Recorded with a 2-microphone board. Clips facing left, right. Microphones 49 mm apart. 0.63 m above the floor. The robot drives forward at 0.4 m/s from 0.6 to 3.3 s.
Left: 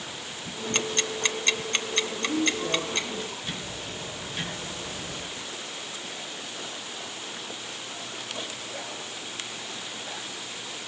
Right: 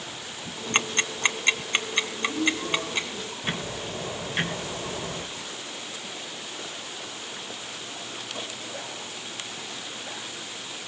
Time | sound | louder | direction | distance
0.7 | ticking | right 3 dB | 35° right (ahead or behind) | 0.5 m
2.1 | a woman speaking | even | 45° left (ahead or behind) | 6.5 m
3.4 | ticking | right 4 dB | 45° right (ahead or behind) | 1.5 m